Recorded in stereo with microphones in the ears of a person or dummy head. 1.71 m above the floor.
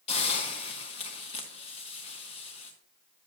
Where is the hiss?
40° left (ahead or behind), 1.2 m.